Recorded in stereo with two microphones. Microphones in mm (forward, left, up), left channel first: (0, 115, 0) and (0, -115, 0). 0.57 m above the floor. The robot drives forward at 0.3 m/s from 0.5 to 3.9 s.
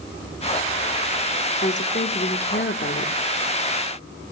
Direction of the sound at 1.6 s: 50° left (ahead or behind).